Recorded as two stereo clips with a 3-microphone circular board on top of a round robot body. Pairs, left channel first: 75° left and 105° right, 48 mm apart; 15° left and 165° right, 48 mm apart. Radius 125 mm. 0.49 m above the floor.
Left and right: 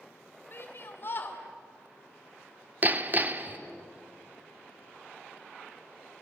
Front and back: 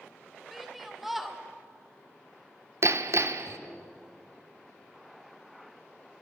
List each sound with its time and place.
0.5 s a shout: 110° left, 2 m
2.8 s hammering: 155° right, 1.0 m